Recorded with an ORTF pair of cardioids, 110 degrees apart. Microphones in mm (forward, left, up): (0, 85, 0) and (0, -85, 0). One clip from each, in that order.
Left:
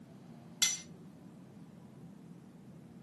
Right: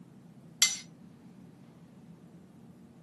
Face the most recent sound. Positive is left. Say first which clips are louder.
# right 5 dB
turn(degrees=-35)